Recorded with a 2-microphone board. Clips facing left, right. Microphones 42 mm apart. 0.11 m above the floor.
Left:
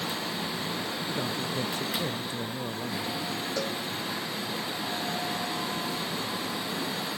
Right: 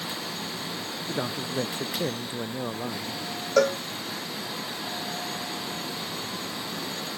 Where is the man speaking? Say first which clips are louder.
Right 4 dB; 25° right (ahead or behind).